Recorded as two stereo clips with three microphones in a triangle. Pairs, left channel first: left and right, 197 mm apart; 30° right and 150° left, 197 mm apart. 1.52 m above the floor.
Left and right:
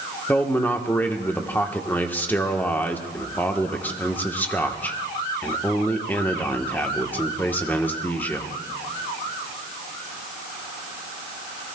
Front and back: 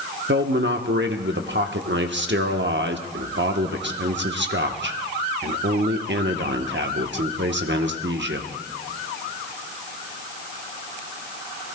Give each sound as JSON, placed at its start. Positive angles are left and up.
{"t": 0.3, "sound": "a man speaking", "azimuth_deg": 170, "distance_m": 1.0}